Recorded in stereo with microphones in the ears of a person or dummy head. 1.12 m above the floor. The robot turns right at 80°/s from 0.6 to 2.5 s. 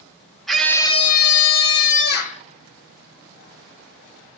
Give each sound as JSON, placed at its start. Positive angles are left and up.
{"t": 0.5, "sound": "a scream", "azimuth_deg": 0, "distance_m": 0.9}